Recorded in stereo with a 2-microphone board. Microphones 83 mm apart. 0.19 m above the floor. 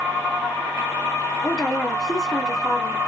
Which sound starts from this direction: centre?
A woman speaking, at 1.4 s.